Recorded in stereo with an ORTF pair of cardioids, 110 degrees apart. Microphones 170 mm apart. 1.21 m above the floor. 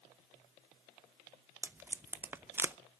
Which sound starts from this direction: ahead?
Tape being pulled, at 1.6 s.